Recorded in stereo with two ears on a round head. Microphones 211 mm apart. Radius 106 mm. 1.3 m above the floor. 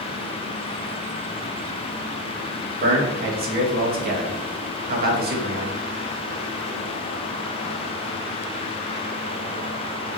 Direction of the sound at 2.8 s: 40° right (ahead or behind).